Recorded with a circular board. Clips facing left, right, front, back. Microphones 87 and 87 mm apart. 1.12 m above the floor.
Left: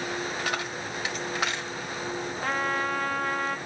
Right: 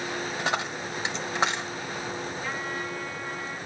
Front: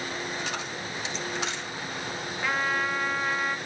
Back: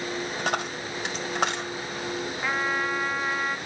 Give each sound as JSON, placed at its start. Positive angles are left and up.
{"t": 0.4, "sound": "a dropped coin", "azimuth_deg": -150, "distance_m": 1.7}
{"t": 2.4, "sound": "a trumpet", "azimuth_deg": 95, "distance_m": 0.9}